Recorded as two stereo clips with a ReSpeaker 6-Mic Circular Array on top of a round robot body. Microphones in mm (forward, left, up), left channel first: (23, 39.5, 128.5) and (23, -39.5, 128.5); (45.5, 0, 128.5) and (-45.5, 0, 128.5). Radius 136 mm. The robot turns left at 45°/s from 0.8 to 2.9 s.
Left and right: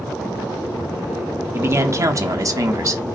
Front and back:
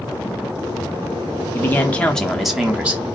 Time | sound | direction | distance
1.5 | a man speaking | 50° right | 0.9 m